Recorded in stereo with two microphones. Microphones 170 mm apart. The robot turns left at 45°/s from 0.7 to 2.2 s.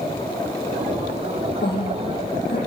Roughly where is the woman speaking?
Left.